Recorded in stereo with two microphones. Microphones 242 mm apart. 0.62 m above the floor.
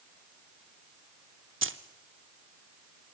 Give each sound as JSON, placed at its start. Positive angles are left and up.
{"t": 1.6, "sound": "keys jangling", "side_deg": -55, "distance_m": 0.8}